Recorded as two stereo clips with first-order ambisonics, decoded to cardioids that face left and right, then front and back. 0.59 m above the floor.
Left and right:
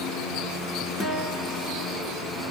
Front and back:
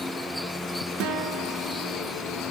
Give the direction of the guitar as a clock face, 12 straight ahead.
7 o'clock.